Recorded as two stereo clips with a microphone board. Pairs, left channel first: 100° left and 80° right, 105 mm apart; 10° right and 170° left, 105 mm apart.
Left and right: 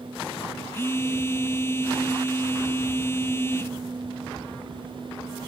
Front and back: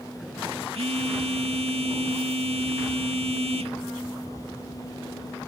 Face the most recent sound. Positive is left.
turn(degrees=165)